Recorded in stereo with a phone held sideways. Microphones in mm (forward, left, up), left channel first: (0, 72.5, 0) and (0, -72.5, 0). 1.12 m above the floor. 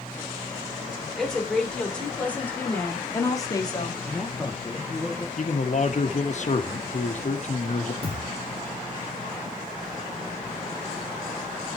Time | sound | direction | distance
1.2 | a woman speaking | 5° left (ahead or behind) | 3 m
4.0 | a man speaking | 10° left (ahead or behind) | 2 m
5.4 | a man speaking | 50° left (ahead or behind) | 1.7 m
8.0 | a thud | 40° right (ahead or behind) | 2 m